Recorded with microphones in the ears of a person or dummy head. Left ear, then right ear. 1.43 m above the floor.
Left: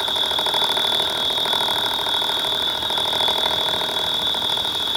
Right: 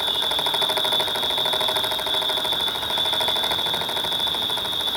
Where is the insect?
15° right (ahead or behind), 6.5 m.